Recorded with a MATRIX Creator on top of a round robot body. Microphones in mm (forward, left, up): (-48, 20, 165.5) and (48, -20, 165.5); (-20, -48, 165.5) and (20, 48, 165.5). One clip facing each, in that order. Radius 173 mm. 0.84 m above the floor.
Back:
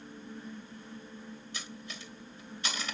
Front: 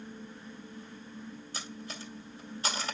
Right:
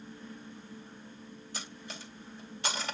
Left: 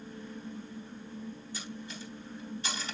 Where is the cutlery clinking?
80° right, 1.5 m.